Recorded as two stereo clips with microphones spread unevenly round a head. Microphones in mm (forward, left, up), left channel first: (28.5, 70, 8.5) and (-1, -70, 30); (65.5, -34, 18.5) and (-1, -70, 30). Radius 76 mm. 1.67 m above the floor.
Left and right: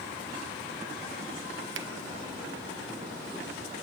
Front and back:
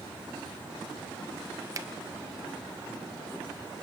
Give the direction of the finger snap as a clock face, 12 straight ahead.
4 o'clock.